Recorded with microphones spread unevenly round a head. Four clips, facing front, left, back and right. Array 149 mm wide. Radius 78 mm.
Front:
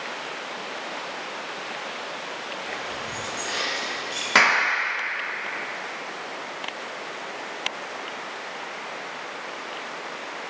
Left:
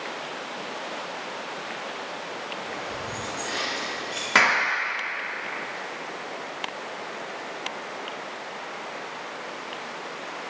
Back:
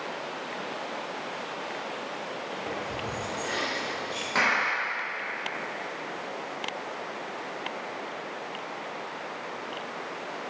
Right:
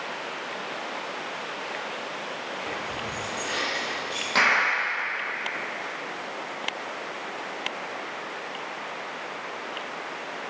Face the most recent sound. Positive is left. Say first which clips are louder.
# left 1 dB, front 6 dB
turn(degrees=25)